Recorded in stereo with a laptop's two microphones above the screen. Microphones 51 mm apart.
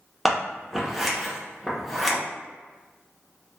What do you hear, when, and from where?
0.2 s scissors: 5° right (ahead or behind), 0.6 m